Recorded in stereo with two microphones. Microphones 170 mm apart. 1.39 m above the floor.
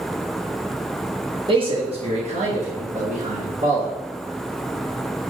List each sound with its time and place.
1.5 s a man speaking: 30° right (ahead or behind), 1.3 m; by 4.0 s 50° right (ahead or behind), 2.5 m